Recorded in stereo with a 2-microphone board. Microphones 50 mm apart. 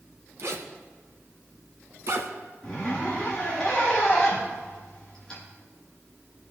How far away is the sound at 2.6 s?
About 4.5 m.